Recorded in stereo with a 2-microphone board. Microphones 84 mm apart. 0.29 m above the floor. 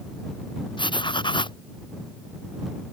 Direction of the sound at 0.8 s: 65° left (ahead or behind).